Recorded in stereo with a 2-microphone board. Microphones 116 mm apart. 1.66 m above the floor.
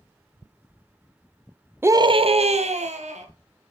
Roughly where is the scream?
Centre.